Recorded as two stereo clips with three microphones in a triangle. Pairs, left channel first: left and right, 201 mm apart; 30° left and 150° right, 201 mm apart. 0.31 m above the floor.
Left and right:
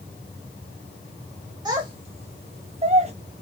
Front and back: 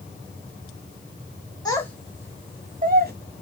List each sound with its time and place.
1.6 s a child speaking: 35° right, 0.7 m; by 3.1 s 140° right, 0.9 m